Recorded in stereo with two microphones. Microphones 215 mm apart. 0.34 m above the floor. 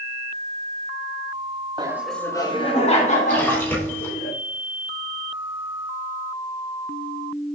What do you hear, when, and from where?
1.8 s laughter: 20° right (ahead or behind), 1.0 m; by 4.3 s 40° left (ahead or behind), 4 m
3.3 s a splash: 10° left (ahead or behind), 3 m